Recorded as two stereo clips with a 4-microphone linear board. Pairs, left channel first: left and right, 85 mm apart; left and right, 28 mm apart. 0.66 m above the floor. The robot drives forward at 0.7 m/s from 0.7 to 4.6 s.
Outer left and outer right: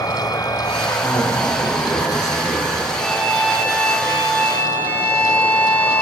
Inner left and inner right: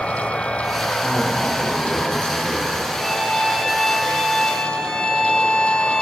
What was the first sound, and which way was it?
An insect, 50° left (ahead or behind).